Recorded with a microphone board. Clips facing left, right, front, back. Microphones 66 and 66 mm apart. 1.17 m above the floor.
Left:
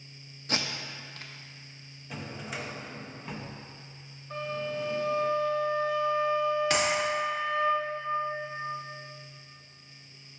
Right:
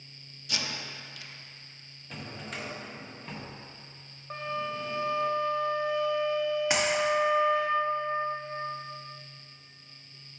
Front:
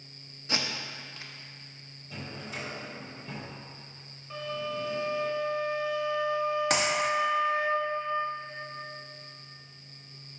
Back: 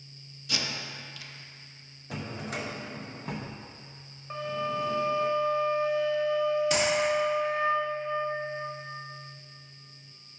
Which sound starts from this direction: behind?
A drawer, at 2.1 s.